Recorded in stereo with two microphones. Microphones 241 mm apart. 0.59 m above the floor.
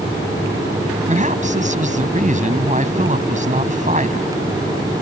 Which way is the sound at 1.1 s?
35° right (ahead or behind).